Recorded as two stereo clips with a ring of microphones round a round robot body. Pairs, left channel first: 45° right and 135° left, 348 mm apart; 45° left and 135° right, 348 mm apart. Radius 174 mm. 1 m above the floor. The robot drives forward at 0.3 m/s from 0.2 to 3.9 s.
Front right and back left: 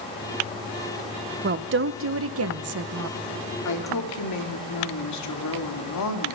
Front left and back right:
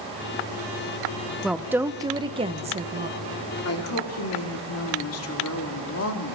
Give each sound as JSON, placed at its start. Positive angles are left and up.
{"t": 1.4, "sound": "a woman speaking", "azimuth_deg": 135, "distance_m": 0.7}
{"t": 3.6, "sound": "a woman speaking", "azimuth_deg": -5, "distance_m": 2.0}